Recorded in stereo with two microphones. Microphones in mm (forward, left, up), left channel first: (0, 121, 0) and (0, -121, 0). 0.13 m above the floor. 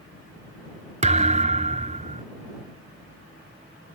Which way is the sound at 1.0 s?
30° right (ahead or behind).